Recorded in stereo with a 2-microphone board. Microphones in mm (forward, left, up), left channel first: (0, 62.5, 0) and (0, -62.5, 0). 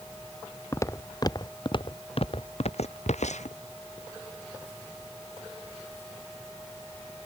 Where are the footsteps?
25° left (ahead or behind); by 3.6 s 70° left (ahead or behind).